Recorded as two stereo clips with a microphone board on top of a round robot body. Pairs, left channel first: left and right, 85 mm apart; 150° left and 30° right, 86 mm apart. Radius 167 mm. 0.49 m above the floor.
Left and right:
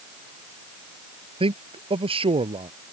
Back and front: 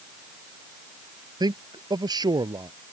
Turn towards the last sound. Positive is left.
turn(degrees=-70)